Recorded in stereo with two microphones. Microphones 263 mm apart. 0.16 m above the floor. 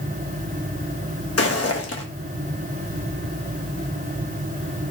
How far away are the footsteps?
About 0.7 m.